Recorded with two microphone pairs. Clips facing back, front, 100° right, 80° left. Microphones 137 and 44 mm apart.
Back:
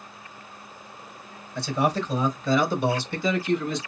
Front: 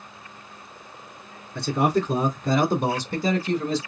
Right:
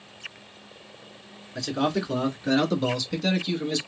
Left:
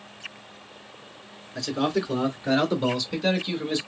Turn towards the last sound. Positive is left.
turn(degrees=20)